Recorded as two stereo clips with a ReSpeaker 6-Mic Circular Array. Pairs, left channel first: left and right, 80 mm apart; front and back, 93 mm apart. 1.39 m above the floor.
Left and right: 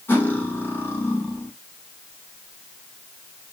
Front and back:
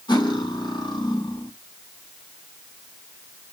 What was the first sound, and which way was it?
Cutlery clinking, 30° left.